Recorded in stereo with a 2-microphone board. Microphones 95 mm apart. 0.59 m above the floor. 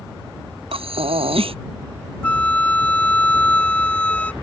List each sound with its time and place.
0.7 s breathing: 75° right (ahead or behind)
2.2 s a flute: 15° left (ahead or behind)